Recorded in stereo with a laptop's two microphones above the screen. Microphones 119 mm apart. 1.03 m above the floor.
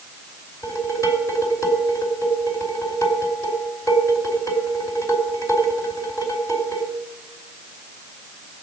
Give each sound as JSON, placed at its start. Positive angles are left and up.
{"t": 0.6, "sound": "dishes clattering", "side_deg": 25, "distance_m": 4.0}